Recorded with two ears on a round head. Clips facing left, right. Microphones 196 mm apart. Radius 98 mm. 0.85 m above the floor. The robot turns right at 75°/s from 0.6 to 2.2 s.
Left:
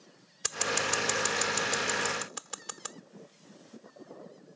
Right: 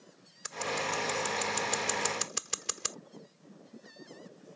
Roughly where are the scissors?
Left.